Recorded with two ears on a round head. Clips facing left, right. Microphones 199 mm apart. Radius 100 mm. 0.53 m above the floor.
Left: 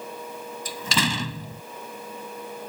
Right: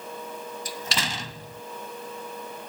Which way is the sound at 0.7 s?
75° left (ahead or behind).